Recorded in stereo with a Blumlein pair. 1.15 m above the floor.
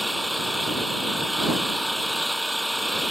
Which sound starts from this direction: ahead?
An engine running, at 0.0 s.